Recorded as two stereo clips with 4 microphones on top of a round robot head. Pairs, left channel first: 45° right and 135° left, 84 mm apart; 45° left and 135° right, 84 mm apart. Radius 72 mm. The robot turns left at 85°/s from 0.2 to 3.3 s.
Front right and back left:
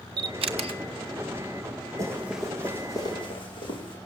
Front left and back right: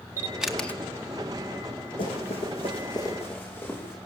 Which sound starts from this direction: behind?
A camera shutter, at 0.2 s.